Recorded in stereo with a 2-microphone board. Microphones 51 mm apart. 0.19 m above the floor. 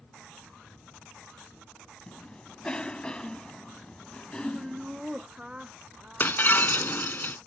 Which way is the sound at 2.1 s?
20° left (ahead or behind).